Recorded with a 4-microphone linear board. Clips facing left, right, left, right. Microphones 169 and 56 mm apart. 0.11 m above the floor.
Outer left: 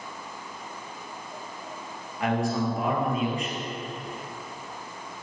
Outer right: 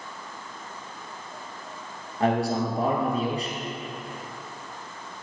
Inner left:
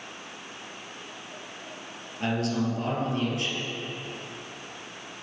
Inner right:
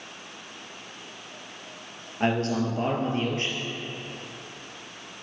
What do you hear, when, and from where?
2.2 s a man speaking: 35° right (ahead or behind), 2.5 m